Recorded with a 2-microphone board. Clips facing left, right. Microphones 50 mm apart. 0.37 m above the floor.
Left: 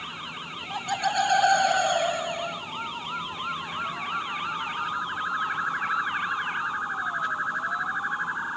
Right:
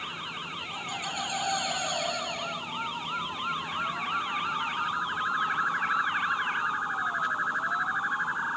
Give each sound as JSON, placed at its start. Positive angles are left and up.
{"t": 0.7, "sound": "laughter", "side_deg": 70, "distance_m": 3.0}